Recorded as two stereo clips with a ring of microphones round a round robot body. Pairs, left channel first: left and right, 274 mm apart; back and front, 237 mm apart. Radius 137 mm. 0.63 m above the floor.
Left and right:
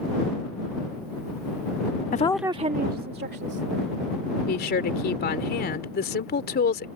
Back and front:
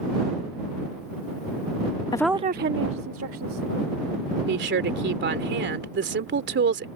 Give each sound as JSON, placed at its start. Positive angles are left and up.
{"t": 2.1, "sound": "a woman speaking", "azimuth_deg": 120}
{"t": 4.5, "sound": "a woman speaking", "azimuth_deg": 35}